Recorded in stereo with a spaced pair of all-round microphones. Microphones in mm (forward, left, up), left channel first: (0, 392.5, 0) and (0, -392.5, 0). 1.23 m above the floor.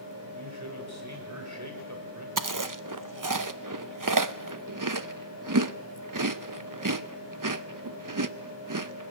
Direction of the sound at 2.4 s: 25° right (ahead or behind).